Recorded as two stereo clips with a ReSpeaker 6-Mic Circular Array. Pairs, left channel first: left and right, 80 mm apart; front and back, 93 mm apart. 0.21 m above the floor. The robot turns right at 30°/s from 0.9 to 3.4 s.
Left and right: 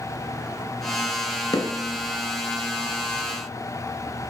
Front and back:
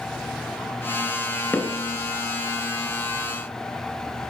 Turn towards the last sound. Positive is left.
turn(degrees=125)